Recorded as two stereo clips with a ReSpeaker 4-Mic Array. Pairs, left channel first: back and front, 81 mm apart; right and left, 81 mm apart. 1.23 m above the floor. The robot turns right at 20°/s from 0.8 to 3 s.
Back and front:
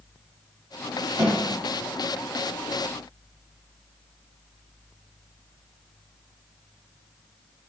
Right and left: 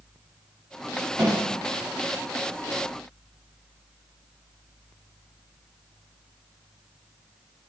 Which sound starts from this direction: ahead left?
A snare drum, at 1.2 s.